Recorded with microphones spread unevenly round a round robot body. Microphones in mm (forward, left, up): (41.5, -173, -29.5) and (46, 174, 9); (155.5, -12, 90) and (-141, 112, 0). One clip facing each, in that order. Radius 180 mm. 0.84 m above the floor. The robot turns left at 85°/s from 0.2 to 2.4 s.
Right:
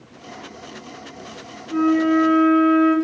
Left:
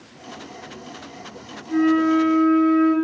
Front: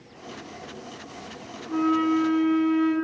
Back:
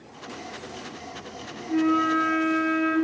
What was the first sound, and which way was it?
A flute, 55° left.